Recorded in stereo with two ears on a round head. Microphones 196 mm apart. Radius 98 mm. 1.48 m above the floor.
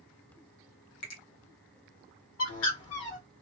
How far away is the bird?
About 1.3 m.